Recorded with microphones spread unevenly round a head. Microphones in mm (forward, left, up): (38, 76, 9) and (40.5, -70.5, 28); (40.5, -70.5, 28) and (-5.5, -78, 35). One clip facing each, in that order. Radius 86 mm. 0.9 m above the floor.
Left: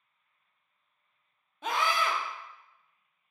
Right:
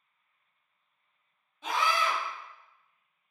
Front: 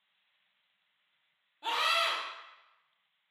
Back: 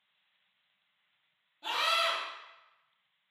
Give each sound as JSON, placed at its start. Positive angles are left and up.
{"t": 1.6, "sound": "a scream", "azimuth_deg": 80, "distance_m": 0.7}